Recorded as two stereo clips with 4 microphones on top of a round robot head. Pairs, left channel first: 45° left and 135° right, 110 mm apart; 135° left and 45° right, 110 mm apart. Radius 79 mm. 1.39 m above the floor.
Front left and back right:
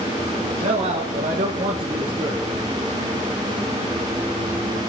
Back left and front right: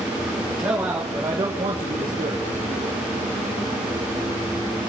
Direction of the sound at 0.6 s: 125° right.